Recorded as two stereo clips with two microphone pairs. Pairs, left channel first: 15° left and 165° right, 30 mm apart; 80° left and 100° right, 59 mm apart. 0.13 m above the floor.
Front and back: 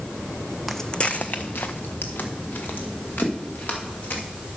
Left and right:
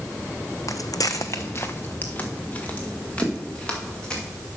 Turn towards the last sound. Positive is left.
turn(degrees=5)